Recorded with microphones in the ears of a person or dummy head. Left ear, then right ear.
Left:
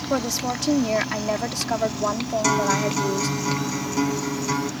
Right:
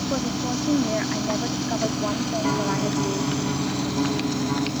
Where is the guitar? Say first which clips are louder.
Left 5 dB; 75° left (ahead or behind).